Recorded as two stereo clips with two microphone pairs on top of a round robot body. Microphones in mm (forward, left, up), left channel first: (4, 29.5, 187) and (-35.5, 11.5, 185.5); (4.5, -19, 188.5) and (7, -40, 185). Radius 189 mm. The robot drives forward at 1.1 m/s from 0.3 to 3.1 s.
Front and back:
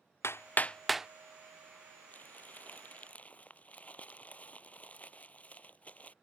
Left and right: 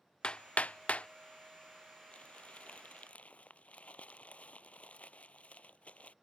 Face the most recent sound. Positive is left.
turn(degrees=85)